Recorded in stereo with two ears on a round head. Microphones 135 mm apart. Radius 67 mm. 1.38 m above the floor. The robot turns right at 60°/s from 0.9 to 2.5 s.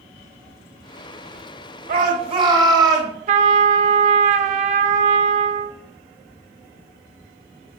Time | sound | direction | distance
1.9 | a shout | 65° right | 1.7 m
3.3 | a trumpet | 50° right (ahead or behind) | 0.5 m